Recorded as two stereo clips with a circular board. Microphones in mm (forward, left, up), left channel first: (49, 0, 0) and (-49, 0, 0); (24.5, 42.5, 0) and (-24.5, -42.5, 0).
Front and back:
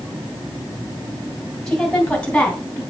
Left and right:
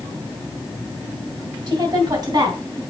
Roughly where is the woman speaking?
Right.